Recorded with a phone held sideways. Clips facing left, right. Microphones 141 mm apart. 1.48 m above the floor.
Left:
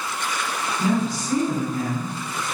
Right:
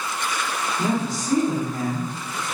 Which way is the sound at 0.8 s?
50° right (ahead or behind).